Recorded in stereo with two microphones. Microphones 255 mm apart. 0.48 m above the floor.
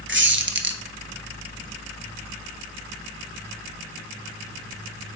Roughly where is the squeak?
Right.